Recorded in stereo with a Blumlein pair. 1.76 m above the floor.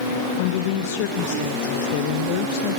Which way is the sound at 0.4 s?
45° left.